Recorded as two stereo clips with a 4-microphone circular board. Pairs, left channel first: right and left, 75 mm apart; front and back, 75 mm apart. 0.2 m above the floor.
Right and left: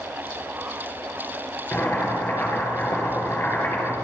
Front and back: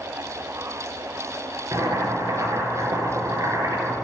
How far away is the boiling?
About 4.5 m.